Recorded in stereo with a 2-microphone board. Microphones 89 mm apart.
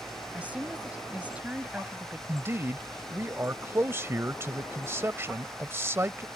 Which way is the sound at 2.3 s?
30° right (ahead or behind).